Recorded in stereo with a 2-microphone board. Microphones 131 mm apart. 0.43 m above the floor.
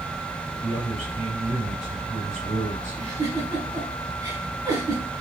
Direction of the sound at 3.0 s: 25° right (ahead or behind).